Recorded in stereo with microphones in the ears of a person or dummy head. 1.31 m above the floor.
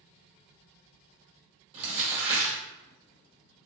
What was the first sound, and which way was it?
Crumpling, 30° right (ahead or behind).